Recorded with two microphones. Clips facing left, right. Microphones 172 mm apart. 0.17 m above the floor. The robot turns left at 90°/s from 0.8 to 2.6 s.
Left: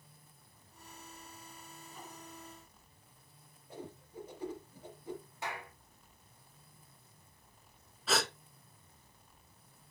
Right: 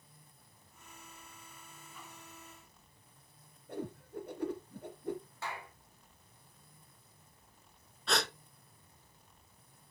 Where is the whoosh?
60° right (ahead or behind), 2.5 m.